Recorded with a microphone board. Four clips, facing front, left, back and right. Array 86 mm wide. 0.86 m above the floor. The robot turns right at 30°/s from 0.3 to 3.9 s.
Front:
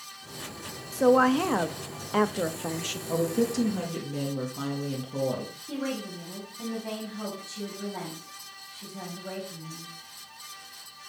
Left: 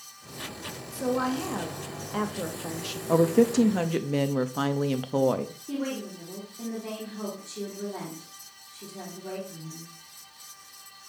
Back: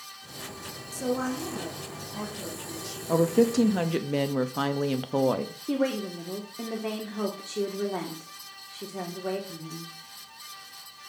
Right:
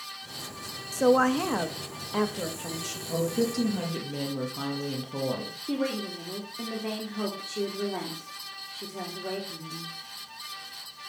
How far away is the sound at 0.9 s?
About 0.9 m.